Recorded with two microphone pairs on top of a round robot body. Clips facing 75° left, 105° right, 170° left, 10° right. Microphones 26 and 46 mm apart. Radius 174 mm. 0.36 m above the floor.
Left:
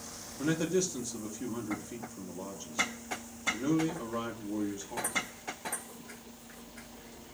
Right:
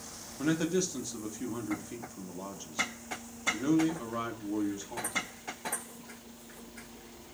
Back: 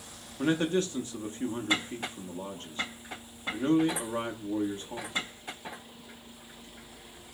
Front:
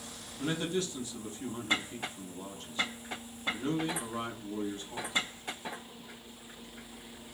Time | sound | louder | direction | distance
0.4 | a man speaking | even, back 6 dB | straight behind | 0.9 m